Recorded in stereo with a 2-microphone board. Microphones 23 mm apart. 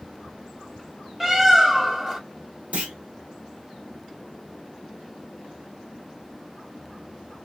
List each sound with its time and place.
1.2 s a bird: 20° right (ahead or behind), 0.8 m
2.7 s a clunk: 60° right (ahead or behind), 0.9 m